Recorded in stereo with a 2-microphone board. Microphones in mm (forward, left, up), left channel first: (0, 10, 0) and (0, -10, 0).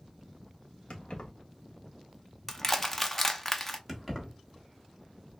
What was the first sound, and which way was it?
Keys jangling, 60° left (ahead or behind).